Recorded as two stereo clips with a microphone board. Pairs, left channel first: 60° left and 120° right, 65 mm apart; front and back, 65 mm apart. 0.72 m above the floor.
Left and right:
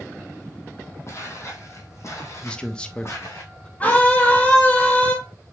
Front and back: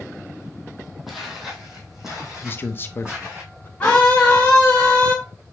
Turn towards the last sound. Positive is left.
turn(degrees=30)